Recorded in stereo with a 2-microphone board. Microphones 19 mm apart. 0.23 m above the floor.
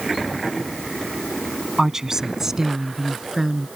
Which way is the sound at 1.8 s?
25° right (ahead or behind).